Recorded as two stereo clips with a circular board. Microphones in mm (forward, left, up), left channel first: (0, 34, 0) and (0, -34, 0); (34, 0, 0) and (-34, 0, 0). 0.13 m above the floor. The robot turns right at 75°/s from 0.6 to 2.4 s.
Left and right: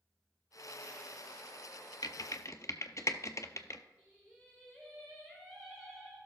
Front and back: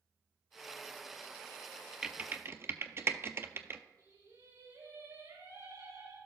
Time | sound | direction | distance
2.0 | typing on a keyboard | 100° left | 0.6 m
4.0 | singing | straight behind | 4.5 m